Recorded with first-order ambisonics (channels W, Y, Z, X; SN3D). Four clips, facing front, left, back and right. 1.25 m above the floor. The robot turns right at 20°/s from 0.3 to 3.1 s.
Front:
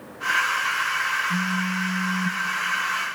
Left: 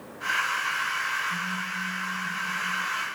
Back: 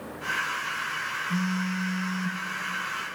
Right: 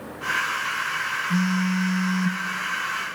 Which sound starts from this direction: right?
A phone buzzing, at 1.3 s.